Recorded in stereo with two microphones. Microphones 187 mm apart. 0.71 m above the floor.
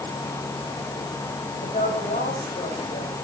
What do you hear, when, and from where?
1.6 s a woman speaking: 45° left (ahead or behind), 4 m